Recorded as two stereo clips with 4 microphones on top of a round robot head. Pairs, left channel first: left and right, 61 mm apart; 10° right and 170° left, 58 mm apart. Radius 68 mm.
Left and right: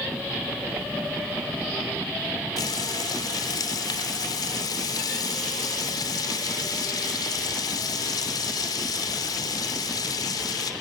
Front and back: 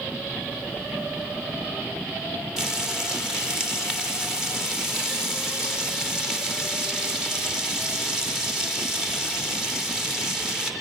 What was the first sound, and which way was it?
Frying, 90° left.